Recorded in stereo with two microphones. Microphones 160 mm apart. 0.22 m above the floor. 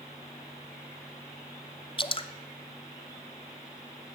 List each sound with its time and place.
2.0 s dripping: 35° left (ahead or behind), 0.7 m